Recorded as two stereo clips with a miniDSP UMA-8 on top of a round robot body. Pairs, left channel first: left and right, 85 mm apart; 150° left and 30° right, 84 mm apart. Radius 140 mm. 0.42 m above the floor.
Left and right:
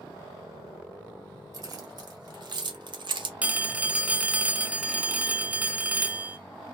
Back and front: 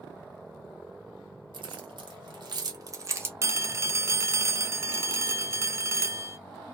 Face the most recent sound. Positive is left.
turn(degrees=-30)